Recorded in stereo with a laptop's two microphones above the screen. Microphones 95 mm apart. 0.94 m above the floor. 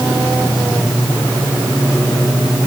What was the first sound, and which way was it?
Only background noise.